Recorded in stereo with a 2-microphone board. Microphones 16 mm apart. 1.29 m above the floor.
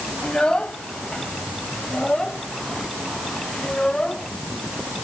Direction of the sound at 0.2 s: 75° left (ahead or behind).